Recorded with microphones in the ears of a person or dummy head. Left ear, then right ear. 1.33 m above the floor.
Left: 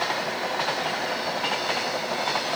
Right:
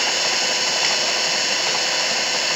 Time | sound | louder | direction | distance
0.0 | an engine running | right 7 dB | 75° right (ahead or behind) | ?